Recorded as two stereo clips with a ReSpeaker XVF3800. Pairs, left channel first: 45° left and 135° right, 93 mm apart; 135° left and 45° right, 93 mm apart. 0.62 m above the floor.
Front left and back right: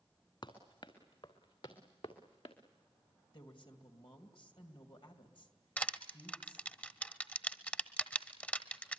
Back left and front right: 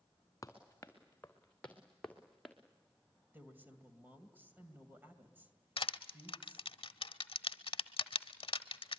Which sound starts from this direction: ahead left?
A woman speaking, at 3.3 s.